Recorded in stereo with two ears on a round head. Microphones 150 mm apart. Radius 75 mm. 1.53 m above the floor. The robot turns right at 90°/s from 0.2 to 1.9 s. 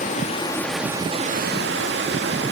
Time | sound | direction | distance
0.0 | running water | 130° left | 2.5 m